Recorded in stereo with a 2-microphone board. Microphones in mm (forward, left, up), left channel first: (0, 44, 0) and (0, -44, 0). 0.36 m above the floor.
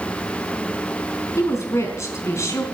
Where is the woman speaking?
35° left (ahead or behind), 4 m.